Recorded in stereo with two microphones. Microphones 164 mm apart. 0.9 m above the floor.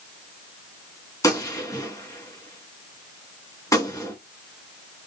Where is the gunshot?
20° left (ahead or behind), 2.5 m.